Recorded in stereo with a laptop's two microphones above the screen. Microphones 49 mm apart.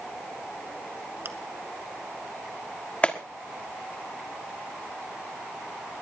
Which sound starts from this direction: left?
A clap, at 3.0 s.